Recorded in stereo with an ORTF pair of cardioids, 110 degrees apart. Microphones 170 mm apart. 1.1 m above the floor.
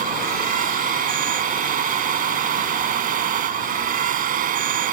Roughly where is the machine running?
Ahead right.